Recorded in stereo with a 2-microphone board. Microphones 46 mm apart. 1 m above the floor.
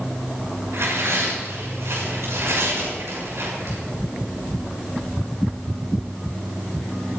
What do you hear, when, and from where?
0.7 s tearing paper: 75° right (ahead or behind), 7 m